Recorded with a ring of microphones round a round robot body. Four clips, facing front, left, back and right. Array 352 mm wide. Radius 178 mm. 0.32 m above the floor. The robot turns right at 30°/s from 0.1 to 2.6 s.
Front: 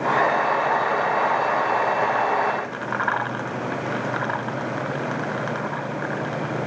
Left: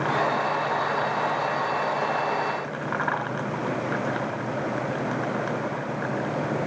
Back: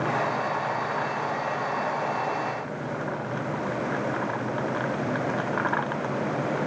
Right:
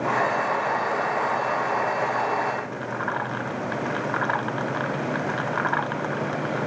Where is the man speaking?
I don't hear a man speaking.